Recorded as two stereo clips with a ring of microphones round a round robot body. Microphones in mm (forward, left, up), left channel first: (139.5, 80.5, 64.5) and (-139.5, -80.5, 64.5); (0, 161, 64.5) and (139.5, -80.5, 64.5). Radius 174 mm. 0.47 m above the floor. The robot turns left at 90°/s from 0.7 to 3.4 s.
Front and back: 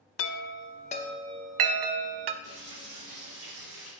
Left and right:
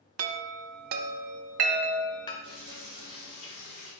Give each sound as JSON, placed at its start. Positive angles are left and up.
{"t": 0.2, "sound": "a chime", "azimuth_deg": -20, "distance_m": 0.7}
{"t": 2.4, "sound": "frying", "azimuth_deg": -70, "distance_m": 4.0}